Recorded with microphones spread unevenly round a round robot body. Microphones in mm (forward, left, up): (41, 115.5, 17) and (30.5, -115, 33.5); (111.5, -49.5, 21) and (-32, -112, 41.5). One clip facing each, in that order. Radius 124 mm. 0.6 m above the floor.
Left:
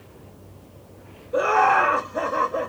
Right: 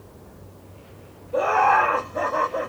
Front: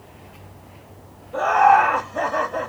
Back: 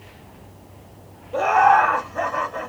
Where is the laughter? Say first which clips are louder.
Left 1 dB, front 1 dB; 135° left, 0.8 m; by 2.7 s 10° left, 1.2 m.